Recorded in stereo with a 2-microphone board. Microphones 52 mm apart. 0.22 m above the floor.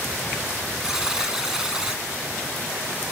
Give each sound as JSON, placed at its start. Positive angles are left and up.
{"t": 0.8, "sound": "a buzzer", "side_deg": -10, "distance_m": 1.9}